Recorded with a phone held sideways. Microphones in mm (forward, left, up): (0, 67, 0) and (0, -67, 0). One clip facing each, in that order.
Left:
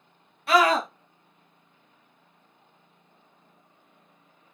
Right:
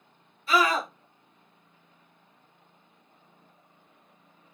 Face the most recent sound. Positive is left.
turn(degrees=70)  # may be behind; listen again after turning